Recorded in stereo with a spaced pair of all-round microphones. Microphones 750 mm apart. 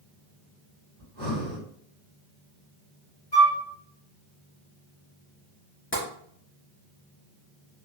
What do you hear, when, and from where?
1.0 s breathing: 40° left (ahead or behind), 1.7 m
3.3 s a flute: 70° left (ahead or behind), 1.7 m
5.9 s tapping: 15° left (ahead or behind), 0.8 m